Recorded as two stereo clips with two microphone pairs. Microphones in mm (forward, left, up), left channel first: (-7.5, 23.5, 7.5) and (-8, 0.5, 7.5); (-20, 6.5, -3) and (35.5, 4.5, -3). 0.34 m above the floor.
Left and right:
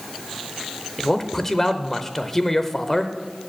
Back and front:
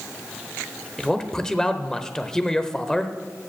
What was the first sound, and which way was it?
A man speaking, 125° left.